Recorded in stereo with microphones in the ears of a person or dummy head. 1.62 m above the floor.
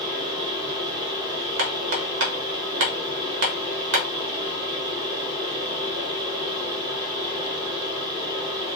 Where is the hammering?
65° right (ahead or behind), 1.2 m.